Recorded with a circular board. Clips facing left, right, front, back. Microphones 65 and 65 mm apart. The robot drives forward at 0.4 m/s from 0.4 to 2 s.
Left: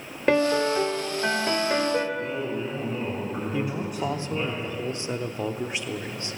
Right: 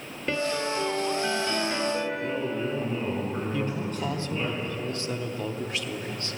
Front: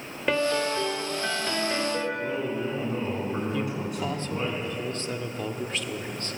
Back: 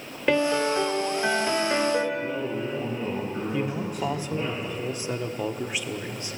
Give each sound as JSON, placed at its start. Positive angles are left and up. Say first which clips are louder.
{"t": 0.3, "sound": "a piano", "louder": "left 7 dB, back 3 dB", "azimuth_deg": 95, "distance_m": 1.9}
{"t": 2.1, "sound": "a man speaking", "louder": "even, even", "azimuth_deg": 10, "distance_m": 6.0}
{"t": 3.5, "sound": "a man speaking", "louder": "left 1 dB, back 1 dB", "azimuth_deg": 120, "distance_m": 0.8}